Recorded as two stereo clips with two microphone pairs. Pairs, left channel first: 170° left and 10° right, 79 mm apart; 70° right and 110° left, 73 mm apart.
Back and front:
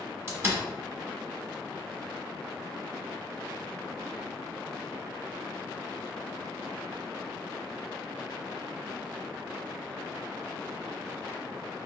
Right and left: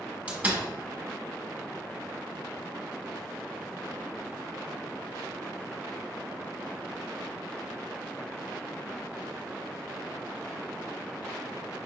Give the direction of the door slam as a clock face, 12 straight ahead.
11 o'clock.